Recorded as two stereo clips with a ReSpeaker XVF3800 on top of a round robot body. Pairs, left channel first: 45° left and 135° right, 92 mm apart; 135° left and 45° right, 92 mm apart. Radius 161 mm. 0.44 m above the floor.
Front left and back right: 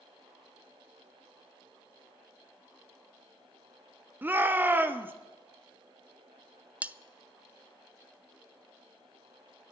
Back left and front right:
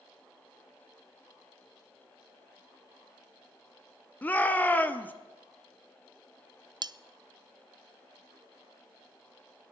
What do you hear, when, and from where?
4.2 s a shout: 175° right, 1.2 m
6.8 s cutlery clinking: 60° right, 0.5 m